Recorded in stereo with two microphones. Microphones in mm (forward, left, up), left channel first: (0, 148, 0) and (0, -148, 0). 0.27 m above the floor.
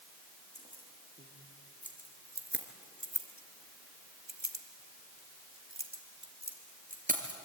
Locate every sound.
0.6 s keys jangling: 20° right (ahead or behind), 4.5 m; by 7.4 s 25° right (ahead or behind), 3.5 m